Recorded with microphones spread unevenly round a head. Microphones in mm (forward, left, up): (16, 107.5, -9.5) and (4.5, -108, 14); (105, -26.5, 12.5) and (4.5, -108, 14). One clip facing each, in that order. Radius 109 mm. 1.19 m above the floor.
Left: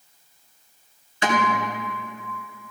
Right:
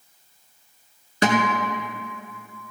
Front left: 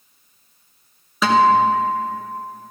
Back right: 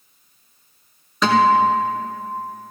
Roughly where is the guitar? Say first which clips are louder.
Right 3 dB, front left 1 dB; ahead right.